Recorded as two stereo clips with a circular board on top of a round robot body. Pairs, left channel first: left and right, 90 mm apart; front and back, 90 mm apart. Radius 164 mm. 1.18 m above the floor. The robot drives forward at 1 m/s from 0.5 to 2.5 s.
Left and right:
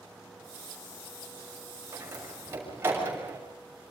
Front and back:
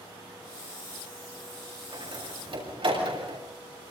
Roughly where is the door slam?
Behind right.